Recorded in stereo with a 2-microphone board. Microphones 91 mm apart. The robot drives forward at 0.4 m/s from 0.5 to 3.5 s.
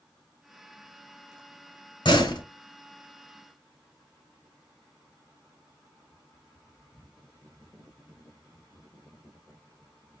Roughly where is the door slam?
Left.